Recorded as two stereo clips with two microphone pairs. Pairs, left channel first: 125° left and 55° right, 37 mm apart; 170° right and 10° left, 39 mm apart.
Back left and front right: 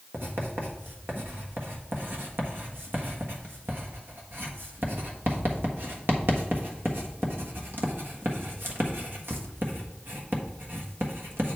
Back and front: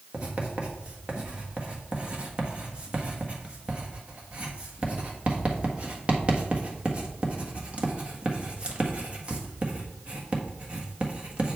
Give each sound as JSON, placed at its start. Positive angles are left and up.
{"t": 0.1, "sound": "writing", "azimuth_deg": -45, "distance_m": 1.4}